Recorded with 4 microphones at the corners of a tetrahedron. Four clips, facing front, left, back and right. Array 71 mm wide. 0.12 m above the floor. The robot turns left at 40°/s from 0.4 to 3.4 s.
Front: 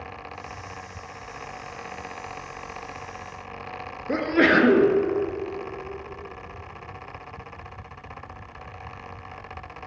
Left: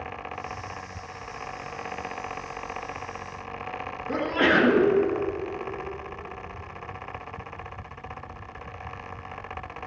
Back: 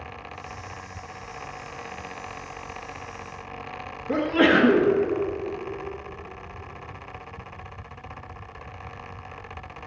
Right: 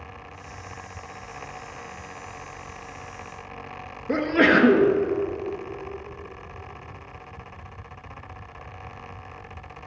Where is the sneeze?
50° right, 1.7 m.